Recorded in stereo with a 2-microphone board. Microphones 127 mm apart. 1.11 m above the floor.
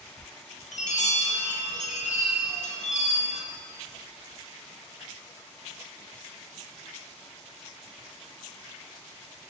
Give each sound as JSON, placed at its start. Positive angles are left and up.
{"t": 0.7, "sound": "a chime", "side_deg": 70, "distance_m": 1.7}